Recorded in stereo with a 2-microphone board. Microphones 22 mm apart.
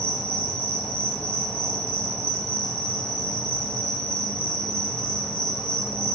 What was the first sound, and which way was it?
An insect, 60° left (ahead or behind).